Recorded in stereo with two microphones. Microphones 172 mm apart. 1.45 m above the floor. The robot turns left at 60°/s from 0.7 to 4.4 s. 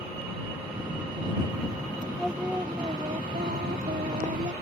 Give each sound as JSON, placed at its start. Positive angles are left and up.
{"t": 2.2, "sound": "singing", "azimuth_deg": 5}